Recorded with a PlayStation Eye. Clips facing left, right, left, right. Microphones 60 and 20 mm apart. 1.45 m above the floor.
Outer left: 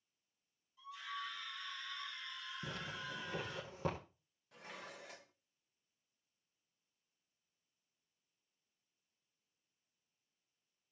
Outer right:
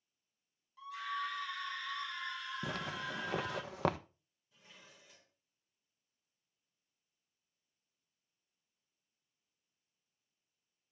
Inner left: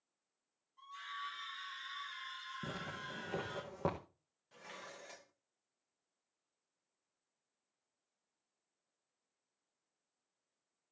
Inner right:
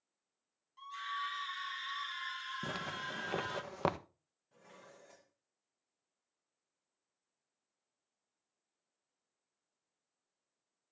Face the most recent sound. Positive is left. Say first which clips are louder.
# outer left 10 dB, inner left 7 dB
turn(degrees=65)  # may be behind; listen again after turning